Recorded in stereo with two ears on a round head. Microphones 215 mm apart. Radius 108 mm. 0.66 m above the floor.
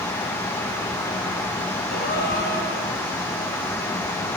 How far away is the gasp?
About 2.5 m.